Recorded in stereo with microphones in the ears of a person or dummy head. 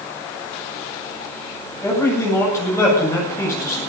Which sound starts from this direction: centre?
A man speaking, at 1.8 s.